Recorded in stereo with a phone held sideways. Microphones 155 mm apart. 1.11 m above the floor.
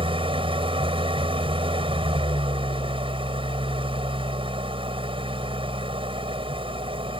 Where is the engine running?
35° right (ahead or behind).